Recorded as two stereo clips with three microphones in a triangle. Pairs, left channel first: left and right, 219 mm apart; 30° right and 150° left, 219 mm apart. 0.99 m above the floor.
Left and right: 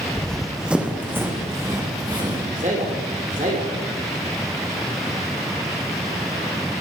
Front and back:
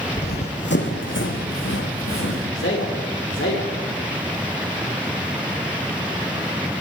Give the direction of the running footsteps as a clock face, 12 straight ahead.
12 o'clock.